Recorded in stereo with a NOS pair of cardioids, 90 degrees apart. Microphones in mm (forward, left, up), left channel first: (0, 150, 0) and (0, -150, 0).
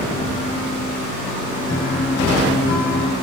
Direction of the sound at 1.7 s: 65° left.